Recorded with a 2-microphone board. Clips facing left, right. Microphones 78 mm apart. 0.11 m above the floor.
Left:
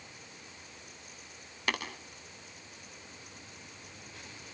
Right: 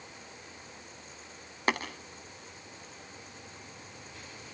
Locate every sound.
1.7 s tapping: 35° right (ahead or behind), 4.5 m